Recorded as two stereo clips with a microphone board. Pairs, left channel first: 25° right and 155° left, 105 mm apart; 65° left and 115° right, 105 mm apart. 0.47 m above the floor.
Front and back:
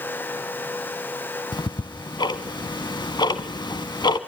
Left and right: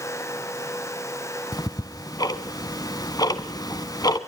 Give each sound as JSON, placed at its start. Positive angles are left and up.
{"t": 1.5, "sound": "ticking", "azimuth_deg": 20, "distance_m": 1.0}